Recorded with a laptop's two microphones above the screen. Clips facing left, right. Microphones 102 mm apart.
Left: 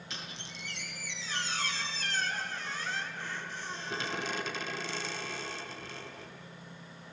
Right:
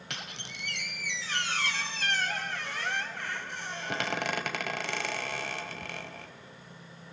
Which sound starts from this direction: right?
A squeak, at 0.1 s.